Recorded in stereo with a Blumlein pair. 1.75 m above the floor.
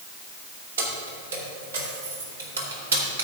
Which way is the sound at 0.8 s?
70° right.